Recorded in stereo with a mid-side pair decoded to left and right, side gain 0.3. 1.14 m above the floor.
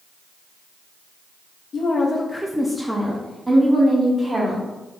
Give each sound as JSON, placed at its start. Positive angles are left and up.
{"t": 1.7, "sound": "a woman speaking", "azimuth_deg": 65, "distance_m": 0.6}